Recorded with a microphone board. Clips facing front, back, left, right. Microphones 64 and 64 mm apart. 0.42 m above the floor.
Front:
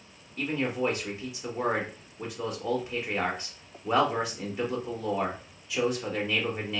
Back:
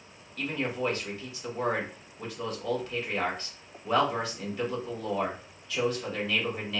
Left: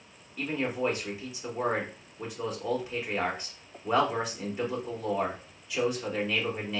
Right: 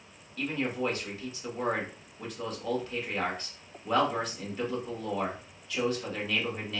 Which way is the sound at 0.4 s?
45° left.